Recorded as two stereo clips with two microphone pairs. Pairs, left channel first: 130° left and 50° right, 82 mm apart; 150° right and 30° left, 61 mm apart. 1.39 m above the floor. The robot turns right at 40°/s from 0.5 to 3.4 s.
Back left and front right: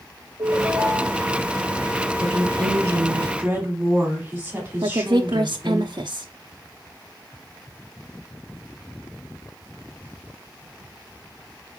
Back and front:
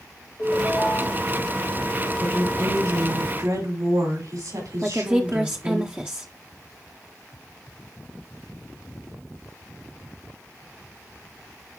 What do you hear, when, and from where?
0.4 s a ringtone: 75° right, 4 m; by 1.2 s 45° right, 4 m
2.2 s a woman speaking: 30° right, 4.5 m; by 5.8 s 20° left, 4.5 m
4.8 s a woman speaking: 35° right, 0.7 m